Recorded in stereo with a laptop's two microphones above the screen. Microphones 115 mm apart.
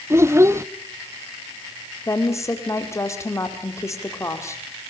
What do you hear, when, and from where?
0.1 s a child speaking: 25° right (ahead or behind), 0.7 m
2.1 s a woman speaking: 25° left (ahead or behind), 2 m